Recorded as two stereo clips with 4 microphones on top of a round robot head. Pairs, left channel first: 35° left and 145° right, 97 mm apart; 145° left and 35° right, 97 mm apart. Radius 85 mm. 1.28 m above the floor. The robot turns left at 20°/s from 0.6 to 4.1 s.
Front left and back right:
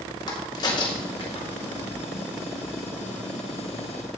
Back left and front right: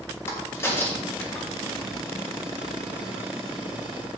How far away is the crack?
About 1.7 m.